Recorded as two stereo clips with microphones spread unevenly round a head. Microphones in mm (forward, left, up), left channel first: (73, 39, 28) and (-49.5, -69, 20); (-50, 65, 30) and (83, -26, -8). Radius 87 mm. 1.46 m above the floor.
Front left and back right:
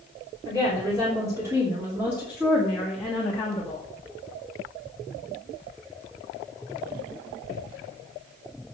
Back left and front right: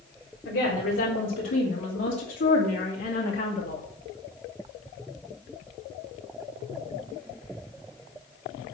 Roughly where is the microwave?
No microwave in this recording.